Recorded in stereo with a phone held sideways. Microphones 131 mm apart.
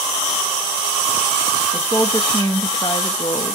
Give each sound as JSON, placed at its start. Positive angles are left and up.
{"t": 1.7, "sound": "a woman speaking", "side_deg": 15, "distance_m": 1.9}